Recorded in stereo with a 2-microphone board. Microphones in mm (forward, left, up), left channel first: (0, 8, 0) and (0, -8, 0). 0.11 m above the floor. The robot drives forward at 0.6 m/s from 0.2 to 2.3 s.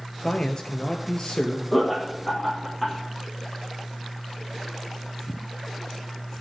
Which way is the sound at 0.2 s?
40° left (ahead or behind).